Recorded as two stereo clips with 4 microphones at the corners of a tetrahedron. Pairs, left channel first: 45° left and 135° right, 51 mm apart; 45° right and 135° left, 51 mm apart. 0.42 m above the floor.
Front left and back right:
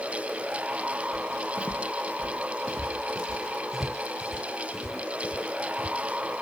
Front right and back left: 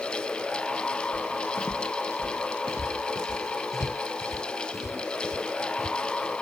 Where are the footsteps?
10° left; by 6.3 s 70° right.